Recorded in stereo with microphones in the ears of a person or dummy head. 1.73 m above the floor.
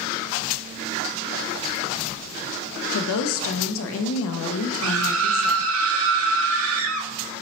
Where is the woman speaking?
80° left, 0.5 m.